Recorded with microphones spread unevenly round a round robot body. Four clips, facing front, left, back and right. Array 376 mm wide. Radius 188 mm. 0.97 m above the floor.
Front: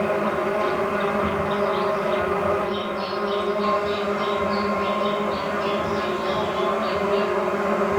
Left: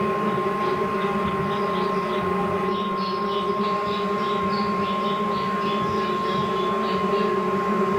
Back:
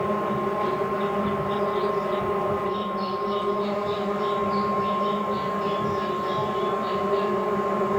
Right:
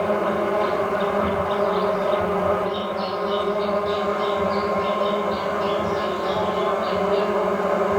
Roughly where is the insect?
Ahead right.